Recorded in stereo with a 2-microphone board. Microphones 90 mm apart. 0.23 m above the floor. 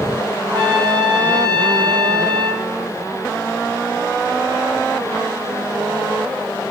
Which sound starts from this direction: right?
A trumpet, at 0.4 s.